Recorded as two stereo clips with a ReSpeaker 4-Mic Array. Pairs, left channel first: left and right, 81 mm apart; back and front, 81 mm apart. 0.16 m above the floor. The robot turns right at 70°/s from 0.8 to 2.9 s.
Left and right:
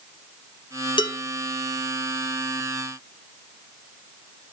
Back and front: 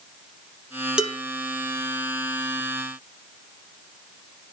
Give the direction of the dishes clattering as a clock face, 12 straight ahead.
9 o'clock.